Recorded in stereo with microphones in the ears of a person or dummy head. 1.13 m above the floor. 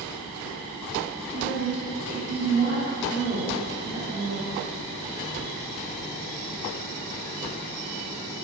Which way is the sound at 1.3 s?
75° right (ahead or behind).